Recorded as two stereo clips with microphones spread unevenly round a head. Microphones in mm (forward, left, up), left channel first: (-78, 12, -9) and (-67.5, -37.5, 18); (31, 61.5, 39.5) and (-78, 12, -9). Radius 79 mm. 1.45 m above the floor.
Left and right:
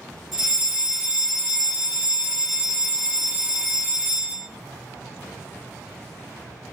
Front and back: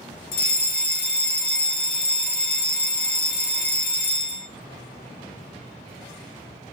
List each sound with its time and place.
0.3 s a fire alarm: 25° left, 2.5 m